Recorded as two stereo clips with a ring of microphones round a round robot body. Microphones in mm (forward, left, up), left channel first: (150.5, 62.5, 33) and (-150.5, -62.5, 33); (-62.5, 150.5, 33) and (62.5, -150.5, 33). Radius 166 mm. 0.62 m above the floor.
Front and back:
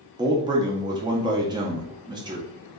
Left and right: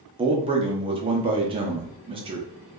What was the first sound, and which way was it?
A man speaking, 105° right.